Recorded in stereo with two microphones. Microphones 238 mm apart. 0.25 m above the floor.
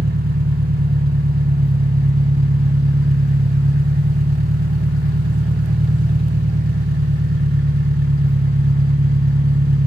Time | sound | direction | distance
0.0 | an engine running | 40° right (ahead or behind) | 1.1 m